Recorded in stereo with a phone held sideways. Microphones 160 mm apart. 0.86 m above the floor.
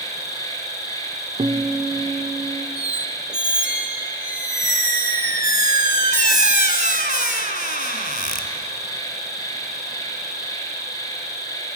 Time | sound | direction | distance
0.0 | an insect | 20° left (ahead or behind) | 6 m
1.4 | a guitar | 40° right (ahead or behind) | 1.3 m
2.8 | a squeak | 70° left (ahead or behind) | 2 m